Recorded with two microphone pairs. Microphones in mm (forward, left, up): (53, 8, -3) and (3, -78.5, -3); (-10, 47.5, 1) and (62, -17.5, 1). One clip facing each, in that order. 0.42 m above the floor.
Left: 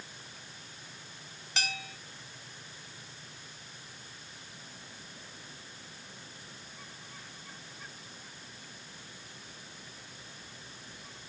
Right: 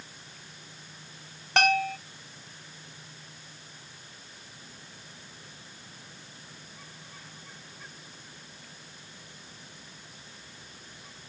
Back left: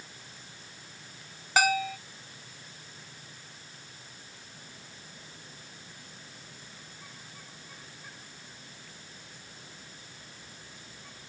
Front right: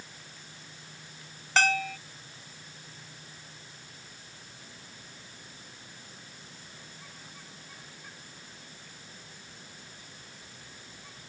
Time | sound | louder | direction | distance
1.6 | a bell | right 15 dB, back left 1 dB | 145° right | ?